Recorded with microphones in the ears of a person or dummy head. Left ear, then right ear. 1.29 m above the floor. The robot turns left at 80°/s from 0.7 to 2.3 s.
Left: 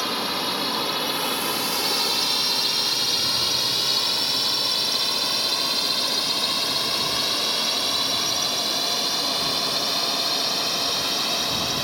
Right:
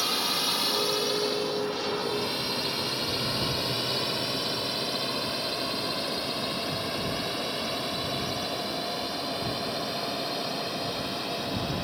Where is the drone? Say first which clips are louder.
Left 2 dB; centre (ahead or behind); by 11.8 s 50° left (ahead or behind).